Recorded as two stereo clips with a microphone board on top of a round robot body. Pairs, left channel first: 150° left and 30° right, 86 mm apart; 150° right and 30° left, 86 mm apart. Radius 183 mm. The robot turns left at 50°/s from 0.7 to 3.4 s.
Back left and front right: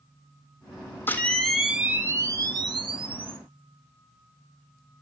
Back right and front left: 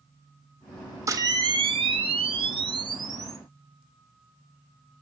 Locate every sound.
1.1 s a camera shutter: 85° left, 2.5 m; by 3.4 s 30° right, 2.5 m